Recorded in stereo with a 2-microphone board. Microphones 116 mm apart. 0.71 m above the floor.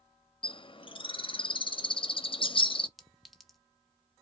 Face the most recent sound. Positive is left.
turn(degrees=0)  # may be behind; listen again after turning